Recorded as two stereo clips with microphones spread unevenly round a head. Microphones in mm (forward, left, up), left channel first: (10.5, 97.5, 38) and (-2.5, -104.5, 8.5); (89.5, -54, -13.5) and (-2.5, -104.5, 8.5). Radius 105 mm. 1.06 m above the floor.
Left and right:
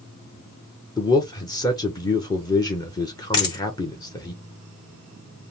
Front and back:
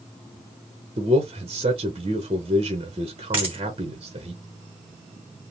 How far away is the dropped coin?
About 1.2 m.